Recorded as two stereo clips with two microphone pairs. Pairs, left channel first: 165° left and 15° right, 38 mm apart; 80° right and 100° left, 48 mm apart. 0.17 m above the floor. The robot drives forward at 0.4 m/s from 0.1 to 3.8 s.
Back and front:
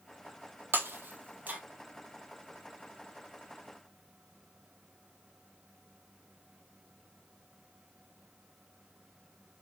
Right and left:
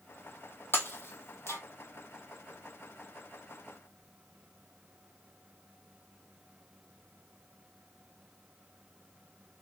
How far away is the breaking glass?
About 1.0 m.